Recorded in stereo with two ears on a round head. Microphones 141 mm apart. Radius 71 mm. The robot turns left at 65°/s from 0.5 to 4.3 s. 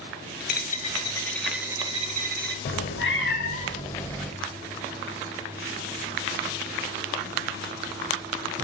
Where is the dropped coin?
60° left, 0.6 m; by 2.5 s 70° right, 0.6 m.